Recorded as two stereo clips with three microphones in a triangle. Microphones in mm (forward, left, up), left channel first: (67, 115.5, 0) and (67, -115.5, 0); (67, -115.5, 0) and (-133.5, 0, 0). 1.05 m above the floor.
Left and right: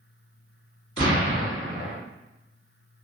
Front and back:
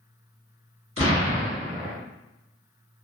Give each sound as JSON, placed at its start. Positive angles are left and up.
{"t": 1.0, "sound": "an explosion", "azimuth_deg": 155, "distance_m": 1.2}